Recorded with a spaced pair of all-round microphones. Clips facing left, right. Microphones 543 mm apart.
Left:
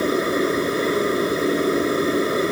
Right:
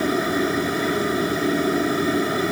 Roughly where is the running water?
Centre.